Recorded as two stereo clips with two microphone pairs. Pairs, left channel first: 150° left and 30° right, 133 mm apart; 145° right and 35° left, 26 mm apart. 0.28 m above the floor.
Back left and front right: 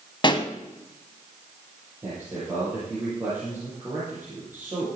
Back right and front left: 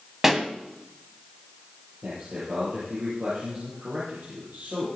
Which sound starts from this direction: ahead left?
A man speaking, at 2.0 s.